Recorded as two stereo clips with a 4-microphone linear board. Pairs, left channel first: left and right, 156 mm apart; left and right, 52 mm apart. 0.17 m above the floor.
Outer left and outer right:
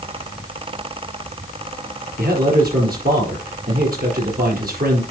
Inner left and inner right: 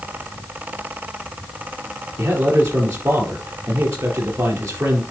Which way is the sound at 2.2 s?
65° right (ahead or behind).